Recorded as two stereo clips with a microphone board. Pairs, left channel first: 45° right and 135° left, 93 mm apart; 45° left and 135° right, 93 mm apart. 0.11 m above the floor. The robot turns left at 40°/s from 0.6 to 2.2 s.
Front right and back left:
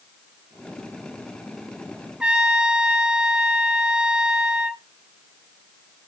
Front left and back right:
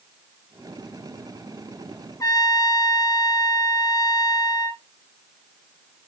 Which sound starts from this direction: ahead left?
A trumpet, at 2.2 s.